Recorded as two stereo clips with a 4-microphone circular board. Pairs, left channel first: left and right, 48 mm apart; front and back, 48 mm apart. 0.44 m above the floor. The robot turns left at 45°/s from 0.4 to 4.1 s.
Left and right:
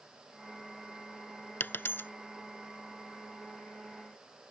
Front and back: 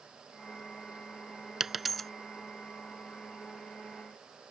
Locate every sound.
1.6 s a dropped coin: 100° left; by 2.1 s 80° left